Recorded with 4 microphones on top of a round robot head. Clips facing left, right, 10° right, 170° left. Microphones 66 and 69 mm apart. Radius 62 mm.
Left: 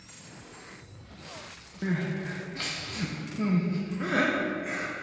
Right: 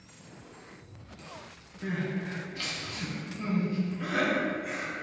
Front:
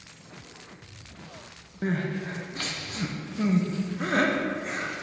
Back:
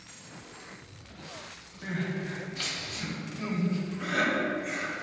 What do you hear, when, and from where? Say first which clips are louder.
1.8 s crying: left 2 dB, front 4 dB; 35° left, 1.2 m